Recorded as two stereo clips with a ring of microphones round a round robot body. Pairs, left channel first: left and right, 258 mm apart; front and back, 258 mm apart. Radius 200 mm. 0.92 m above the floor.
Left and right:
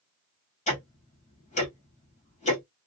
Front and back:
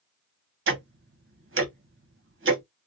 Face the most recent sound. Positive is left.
turn(degrees=150)